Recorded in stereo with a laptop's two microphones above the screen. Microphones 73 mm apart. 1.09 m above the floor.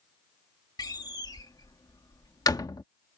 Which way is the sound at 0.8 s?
65° left (ahead or behind).